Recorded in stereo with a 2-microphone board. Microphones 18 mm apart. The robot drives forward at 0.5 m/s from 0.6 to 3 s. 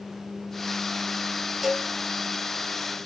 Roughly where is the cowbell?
Right.